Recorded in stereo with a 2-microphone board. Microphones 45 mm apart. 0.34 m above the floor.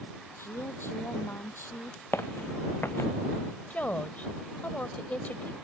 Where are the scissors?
No scissors in this recording.